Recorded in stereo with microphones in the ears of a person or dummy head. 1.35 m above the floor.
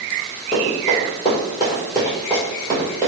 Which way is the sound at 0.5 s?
20° left (ahead or behind).